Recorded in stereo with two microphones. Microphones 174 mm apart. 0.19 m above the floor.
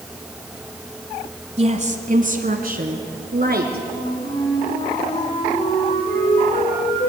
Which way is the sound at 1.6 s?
40° right (ahead or behind).